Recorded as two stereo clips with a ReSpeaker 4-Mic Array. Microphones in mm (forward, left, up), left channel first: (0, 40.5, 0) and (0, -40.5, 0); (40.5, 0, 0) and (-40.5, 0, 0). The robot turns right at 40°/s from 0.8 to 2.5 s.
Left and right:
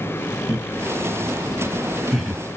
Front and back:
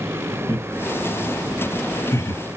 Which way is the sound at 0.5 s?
50° right.